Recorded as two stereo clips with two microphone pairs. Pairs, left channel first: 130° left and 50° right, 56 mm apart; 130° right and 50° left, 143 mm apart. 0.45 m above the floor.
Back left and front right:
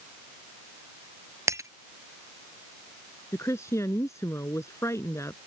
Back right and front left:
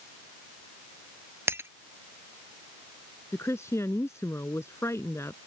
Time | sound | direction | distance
1.5 | breaking glass | 25° right | ?
3.3 | a woman speaking | 160° left | ?